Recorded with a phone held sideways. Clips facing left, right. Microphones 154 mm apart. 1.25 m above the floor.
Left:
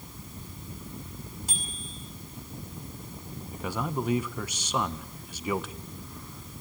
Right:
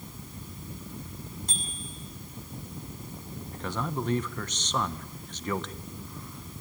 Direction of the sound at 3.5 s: 10° left (ahead or behind).